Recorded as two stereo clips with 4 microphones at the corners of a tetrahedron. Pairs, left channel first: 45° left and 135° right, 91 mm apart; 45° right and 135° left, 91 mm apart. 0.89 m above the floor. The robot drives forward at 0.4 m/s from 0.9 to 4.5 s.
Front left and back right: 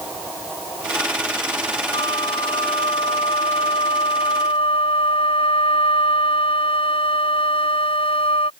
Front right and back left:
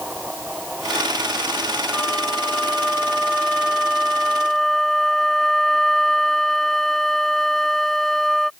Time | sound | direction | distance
1.9 | a flute | 40° left | ?